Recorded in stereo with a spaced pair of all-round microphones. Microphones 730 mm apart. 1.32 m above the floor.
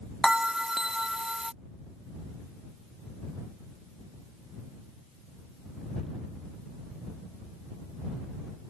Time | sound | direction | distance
0.2 | a bell | centre (ahead or behind) | ?